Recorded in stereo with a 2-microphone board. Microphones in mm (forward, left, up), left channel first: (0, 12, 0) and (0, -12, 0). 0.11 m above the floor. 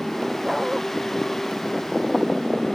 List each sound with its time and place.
0.4 s a dog barking: 20° right (ahead or behind)